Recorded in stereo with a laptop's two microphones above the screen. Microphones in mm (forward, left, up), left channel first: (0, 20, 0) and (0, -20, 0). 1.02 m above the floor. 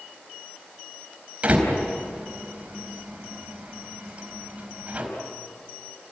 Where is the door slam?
30° right (ahead or behind), 4.5 m.